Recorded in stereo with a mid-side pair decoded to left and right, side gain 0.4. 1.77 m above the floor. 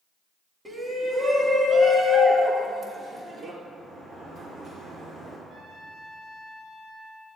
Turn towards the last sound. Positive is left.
turn(degrees=-55)